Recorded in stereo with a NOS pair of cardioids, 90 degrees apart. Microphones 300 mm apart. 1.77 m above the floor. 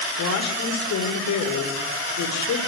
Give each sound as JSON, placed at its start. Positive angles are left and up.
{"t": 0.2, "sound": "a woman speaking", "azimuth_deg": 65, "distance_m": 6.0}